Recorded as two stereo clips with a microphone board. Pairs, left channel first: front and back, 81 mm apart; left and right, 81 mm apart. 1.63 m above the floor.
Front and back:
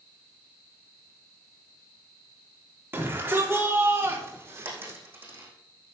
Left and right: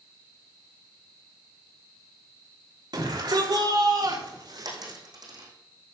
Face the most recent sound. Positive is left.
turn(degrees=-115)